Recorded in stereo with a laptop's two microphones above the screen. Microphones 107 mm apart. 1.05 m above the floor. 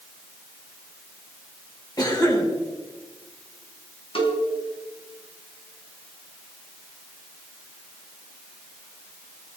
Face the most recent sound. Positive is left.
turn(degrees=55)  # may be behind; listen again after turning